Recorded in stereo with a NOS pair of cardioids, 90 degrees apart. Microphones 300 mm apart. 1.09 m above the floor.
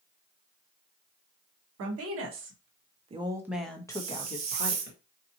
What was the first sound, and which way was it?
A woman speaking, 60° right.